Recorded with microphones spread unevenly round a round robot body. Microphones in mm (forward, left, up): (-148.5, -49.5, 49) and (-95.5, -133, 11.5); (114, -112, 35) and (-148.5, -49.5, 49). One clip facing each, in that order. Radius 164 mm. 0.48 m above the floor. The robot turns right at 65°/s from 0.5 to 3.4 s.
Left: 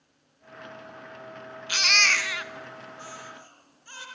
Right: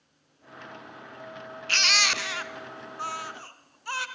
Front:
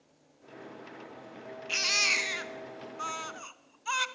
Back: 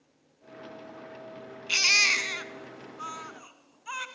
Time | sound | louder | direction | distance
1.7 | a baby crying | left 1 dB, front 1 dB | 160° right | 2.5 m